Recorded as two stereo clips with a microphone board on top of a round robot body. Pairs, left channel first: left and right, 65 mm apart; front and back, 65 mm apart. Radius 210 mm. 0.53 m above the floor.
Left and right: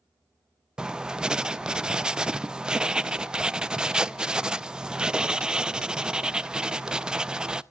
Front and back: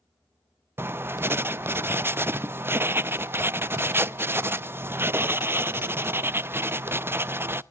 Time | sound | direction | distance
0.8 | writing | 160° right | 0.7 m